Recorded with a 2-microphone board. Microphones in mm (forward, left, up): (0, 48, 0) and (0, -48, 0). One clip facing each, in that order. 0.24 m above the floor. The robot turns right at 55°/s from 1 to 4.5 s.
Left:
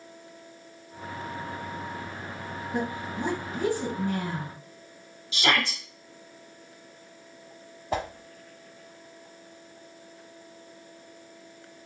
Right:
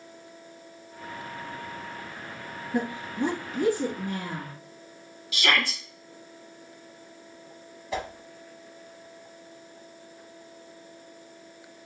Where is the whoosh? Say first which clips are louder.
Left 2 dB; 45° left (ahead or behind), 0.6 m.